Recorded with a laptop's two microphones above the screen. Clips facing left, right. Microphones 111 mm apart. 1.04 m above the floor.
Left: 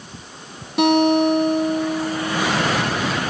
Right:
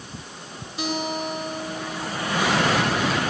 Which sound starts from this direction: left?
A guitar, at 0.8 s.